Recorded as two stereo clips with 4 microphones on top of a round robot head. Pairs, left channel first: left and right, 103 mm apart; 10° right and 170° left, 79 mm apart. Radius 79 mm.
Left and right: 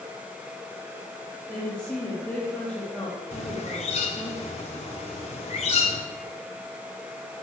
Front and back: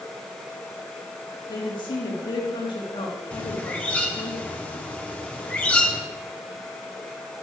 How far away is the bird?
About 1.4 m.